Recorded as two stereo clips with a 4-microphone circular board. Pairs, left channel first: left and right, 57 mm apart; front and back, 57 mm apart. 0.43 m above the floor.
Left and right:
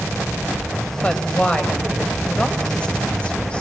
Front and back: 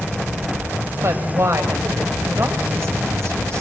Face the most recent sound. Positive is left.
turn(degrees=155)